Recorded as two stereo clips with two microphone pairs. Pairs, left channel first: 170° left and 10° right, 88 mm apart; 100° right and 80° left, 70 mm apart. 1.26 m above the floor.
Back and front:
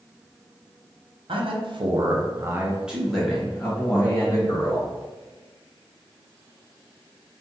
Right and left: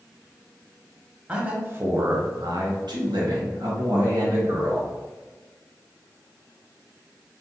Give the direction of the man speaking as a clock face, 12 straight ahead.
12 o'clock.